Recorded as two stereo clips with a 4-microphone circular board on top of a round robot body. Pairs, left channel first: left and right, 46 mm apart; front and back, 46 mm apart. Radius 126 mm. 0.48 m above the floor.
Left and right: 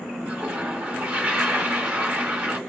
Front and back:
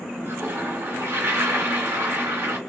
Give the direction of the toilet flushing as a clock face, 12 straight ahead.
5 o'clock.